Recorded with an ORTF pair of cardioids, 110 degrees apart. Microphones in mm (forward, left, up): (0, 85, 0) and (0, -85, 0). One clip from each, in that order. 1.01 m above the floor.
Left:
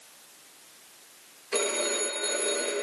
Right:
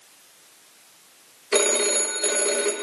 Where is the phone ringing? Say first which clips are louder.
Right 7 dB; 45° right, 0.8 m.